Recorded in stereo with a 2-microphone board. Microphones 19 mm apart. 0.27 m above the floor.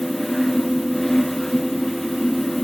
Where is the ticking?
No ticking in this recording.